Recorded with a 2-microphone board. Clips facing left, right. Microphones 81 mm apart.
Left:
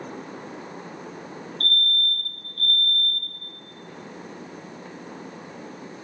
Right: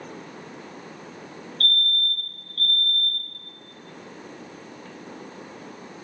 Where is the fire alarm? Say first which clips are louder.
Even; 25° left (ahead or behind), 4 m.